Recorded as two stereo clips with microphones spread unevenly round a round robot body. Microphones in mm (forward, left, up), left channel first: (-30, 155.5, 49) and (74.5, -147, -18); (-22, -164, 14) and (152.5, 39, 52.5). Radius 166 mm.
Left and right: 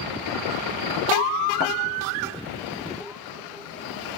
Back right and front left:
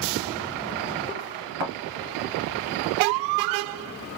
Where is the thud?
50° left, 1.9 m.